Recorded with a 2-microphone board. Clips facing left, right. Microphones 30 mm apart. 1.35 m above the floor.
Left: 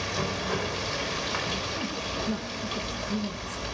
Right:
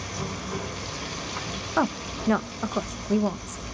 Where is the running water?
60° left (ahead or behind), 6 m.